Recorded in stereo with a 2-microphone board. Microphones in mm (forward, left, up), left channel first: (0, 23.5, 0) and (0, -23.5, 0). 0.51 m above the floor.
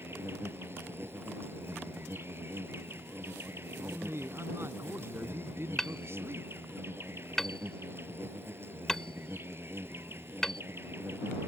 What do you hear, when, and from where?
0.0 s an insect: 50° right (ahead or behind)
3.8 s a man speaking: 55° right (ahead or behind)
5.8 s hammering: 10° left (ahead or behind)